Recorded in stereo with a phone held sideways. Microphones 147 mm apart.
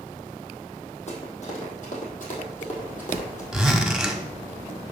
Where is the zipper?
5° right (ahead or behind), 1.2 m.